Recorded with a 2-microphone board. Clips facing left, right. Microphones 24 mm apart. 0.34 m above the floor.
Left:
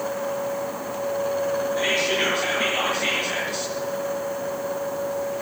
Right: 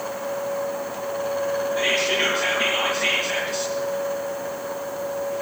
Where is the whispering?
10° right (ahead or behind), 5 m.